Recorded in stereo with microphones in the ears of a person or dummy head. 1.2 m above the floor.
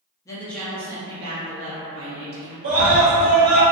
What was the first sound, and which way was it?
A woman speaking, 15° left (ahead or behind).